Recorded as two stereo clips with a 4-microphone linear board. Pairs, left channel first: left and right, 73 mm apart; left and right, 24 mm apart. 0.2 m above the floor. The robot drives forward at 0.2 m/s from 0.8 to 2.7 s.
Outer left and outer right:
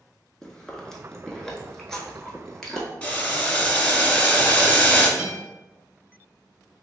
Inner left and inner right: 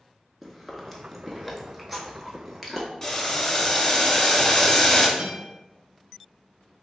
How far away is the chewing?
About 0.6 m.